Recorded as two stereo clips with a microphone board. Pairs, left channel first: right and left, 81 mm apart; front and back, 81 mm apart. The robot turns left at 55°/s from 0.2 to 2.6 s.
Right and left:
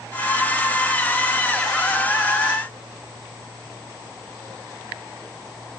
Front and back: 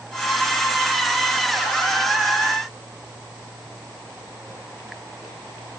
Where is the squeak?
No squeak in this recording.